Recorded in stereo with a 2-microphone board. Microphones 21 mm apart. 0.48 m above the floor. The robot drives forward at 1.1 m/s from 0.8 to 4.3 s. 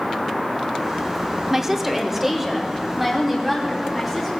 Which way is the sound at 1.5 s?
15° right (ahead or behind).